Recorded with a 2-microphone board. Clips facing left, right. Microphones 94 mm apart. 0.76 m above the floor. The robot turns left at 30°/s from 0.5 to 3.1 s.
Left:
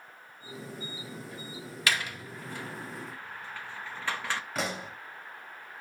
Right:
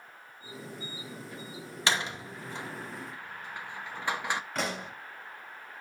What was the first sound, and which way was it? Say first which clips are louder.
A door slam: right 1 dB; 25° right (ahead or behind).